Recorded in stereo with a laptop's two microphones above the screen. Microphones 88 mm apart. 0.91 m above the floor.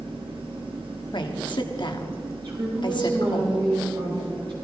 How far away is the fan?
About 1.3 m.